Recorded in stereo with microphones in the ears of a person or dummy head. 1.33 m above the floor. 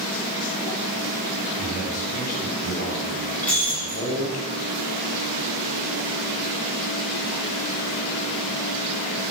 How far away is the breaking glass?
About 8 m.